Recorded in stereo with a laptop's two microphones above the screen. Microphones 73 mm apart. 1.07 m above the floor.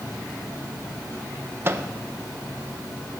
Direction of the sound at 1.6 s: 30° right (ahead or behind).